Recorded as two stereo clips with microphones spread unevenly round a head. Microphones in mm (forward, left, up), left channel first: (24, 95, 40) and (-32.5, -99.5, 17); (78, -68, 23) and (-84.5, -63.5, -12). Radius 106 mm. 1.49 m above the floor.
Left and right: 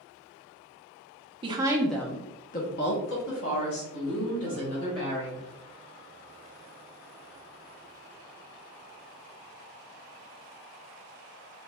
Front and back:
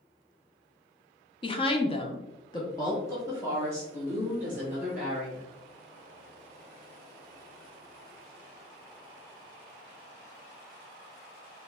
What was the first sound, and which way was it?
A woman speaking, 40° right.